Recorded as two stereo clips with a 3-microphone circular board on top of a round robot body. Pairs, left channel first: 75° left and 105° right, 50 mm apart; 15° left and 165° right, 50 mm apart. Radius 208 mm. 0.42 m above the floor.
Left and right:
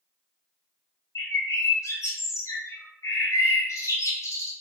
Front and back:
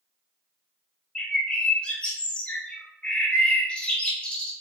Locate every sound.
1.1 s a bird: 85° left, 0.6 m